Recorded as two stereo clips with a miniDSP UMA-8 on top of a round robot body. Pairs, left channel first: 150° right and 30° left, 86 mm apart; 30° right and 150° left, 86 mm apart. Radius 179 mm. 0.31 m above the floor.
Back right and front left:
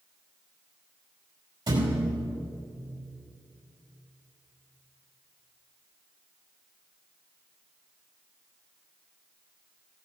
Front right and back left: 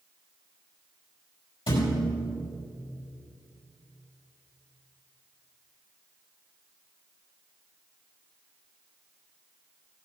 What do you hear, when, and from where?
1.7 s a thud: 15° right, 5 m